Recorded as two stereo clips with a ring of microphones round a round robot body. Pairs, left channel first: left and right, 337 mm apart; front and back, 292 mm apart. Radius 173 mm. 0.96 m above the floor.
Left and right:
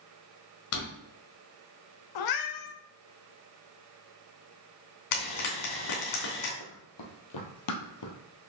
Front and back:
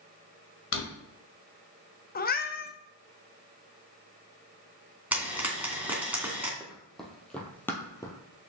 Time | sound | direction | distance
0.7 | a drawer | 45° left | 1.6 m
2.1 | a cat meowing | 60° left | 0.8 m
5.1 | frying | 95° left | 2.5 m
6.6 | running footsteps | 90° left | 2 m